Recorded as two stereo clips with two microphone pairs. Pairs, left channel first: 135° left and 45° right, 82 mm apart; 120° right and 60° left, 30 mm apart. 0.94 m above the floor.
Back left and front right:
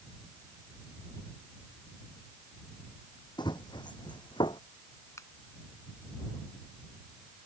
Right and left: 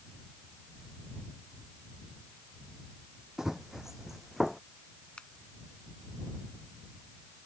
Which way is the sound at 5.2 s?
170° right.